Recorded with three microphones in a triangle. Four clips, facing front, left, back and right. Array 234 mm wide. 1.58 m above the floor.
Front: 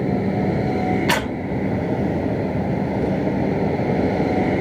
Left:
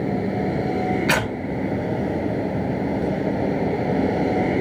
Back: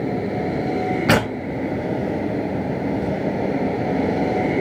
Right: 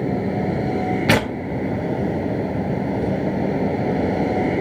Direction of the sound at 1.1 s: 135° right.